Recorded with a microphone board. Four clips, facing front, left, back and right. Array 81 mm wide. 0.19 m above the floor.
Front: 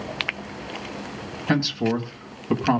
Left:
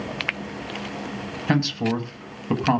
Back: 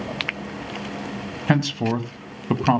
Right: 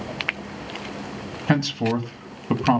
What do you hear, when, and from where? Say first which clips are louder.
1.5 s a man speaking: right 1 dB, back 1 dB; 160° right, 1.3 m